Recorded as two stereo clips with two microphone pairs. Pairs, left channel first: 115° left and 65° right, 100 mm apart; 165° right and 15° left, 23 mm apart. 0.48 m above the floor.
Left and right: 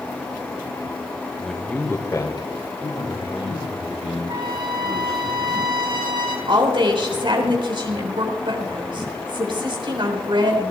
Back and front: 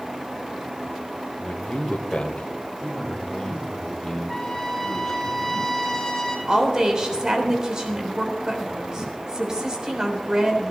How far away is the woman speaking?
About 3.5 m.